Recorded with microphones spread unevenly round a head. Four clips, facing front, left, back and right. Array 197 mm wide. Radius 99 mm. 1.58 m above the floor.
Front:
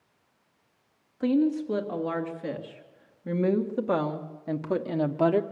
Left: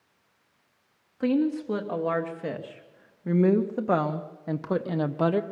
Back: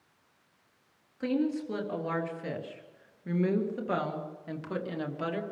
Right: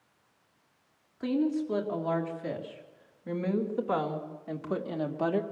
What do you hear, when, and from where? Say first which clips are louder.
1.2 s a woman speaking: left 4 dB, front 5 dB; 70° left, 3.5 m; by 5.4 s 35° left, 1.1 m